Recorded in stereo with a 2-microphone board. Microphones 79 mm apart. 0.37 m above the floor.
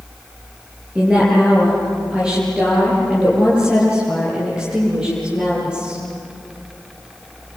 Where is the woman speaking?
10° right (ahead or behind), 8 m; by 6.0 s 15° right (ahead or behind), 11 m.